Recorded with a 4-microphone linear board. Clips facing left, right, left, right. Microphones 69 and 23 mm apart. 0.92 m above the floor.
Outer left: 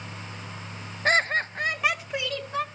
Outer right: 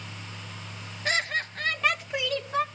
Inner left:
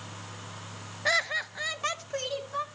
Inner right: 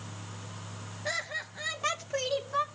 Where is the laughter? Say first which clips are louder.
Outer left 5 dB, inner left 7 dB; 40° left (ahead or behind), 0.6 m; by 2.6 s 10° right (ahead or behind), 1.0 m.